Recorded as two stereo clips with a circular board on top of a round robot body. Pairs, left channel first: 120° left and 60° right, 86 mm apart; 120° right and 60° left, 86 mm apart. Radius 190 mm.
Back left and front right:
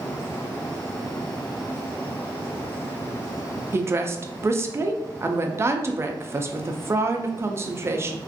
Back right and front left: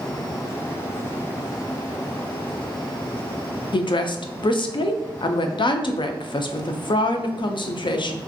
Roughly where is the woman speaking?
Behind right.